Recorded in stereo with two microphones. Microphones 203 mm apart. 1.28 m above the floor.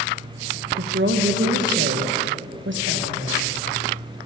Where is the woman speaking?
70° right (ahead or behind), 1.2 m.